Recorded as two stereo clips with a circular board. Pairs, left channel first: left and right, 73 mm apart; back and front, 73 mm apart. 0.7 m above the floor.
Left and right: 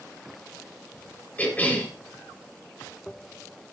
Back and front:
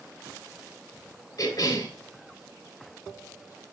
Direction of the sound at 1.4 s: 155° left.